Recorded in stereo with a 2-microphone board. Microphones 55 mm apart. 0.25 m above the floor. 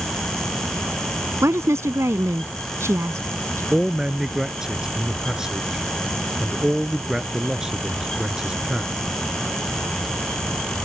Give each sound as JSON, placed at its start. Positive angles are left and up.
{"t": 1.4, "sound": "a woman speaking", "side_deg": -60}
{"t": 3.7, "sound": "a man speaking", "side_deg": -10}